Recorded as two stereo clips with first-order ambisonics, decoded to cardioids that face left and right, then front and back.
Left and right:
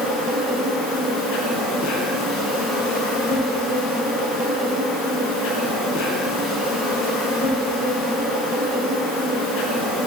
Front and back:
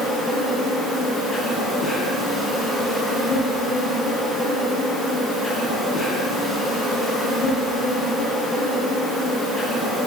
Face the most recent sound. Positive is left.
turn(degrees=85)